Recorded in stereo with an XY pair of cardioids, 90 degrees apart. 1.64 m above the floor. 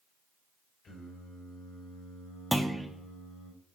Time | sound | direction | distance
0.8 | singing | 65° left | 4 m
2.5 | a clunk | straight ahead | 0.7 m